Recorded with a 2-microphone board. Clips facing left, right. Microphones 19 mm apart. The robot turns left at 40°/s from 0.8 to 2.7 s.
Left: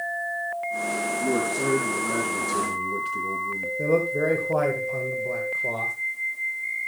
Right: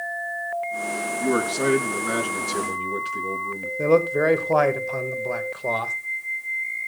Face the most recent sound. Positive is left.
turn(degrees=-40)  # may be behind; listen again after turning